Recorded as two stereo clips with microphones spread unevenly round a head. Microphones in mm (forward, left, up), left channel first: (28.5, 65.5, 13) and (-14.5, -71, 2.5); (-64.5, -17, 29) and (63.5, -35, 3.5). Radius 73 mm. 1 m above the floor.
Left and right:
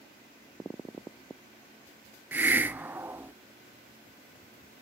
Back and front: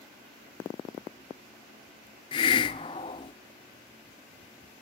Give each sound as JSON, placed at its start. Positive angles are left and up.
{"t": 2.3, "sound": "a hiss", "azimuth_deg": 175, "distance_m": 0.7}